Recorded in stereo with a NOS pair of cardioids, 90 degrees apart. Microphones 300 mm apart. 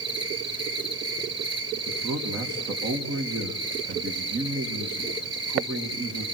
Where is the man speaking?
50° right, 2.5 m.